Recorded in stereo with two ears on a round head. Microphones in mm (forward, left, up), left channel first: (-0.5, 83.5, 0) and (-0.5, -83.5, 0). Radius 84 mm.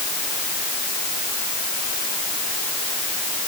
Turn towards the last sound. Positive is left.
No sound to turn to.